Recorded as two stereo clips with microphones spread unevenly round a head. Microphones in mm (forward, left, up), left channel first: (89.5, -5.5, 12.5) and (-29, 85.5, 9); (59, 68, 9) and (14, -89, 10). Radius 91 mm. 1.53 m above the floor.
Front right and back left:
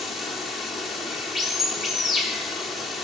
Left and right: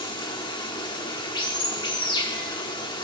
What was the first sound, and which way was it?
Running water, 55° left.